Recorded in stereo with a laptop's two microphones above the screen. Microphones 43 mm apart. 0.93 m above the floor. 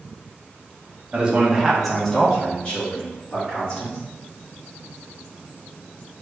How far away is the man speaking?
About 0.9 m.